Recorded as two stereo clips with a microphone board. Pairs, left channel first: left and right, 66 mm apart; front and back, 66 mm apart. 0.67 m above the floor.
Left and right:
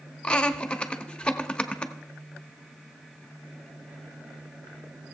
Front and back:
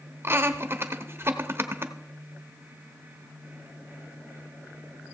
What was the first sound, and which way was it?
Laughter, 155° left.